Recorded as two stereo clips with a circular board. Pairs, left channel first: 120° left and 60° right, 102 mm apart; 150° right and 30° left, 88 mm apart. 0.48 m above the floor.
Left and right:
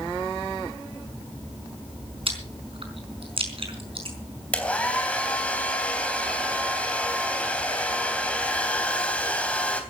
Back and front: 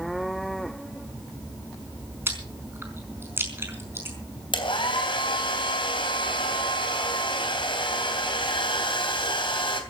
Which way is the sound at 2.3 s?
35° right.